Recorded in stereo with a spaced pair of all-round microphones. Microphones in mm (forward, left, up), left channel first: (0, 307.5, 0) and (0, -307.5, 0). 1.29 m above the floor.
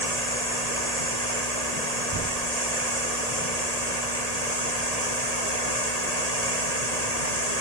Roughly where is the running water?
Right.